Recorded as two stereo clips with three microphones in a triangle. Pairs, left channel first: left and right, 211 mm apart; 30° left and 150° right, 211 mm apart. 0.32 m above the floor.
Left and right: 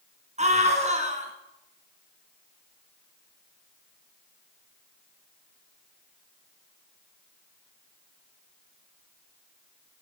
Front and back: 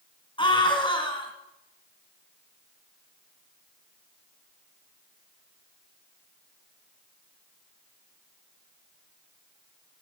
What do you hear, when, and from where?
0.4 s a scream: 35° right, 3 m